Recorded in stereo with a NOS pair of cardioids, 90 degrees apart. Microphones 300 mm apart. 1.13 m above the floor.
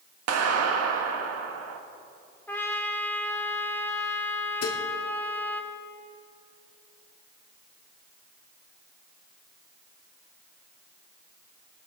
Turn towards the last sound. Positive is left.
turn(degrees=60)